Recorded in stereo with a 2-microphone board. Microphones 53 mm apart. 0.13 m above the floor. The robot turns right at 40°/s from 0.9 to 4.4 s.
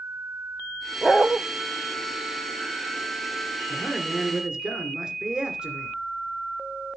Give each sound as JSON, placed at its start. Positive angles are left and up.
{"t": 1.0, "sound": "a dog barking", "side_deg": 0, "distance_m": 1.0}
{"t": 3.7, "sound": "a man speaking", "side_deg": 5, "distance_m": 2.0}